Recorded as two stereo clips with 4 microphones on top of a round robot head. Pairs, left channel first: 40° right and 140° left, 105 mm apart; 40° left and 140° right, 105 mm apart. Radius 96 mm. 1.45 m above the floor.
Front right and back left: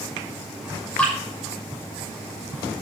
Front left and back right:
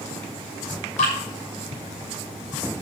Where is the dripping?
40° left, 7 m.